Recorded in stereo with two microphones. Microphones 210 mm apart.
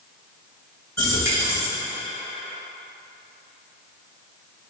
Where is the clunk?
I don't hear a clunk.